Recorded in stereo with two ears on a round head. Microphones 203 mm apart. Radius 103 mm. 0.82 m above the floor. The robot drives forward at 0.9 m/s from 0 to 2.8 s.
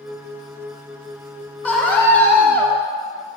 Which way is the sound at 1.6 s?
5° left (ahead or behind).